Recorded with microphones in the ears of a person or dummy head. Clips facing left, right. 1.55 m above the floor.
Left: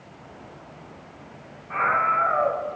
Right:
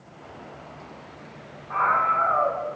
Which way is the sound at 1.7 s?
25° left (ahead or behind).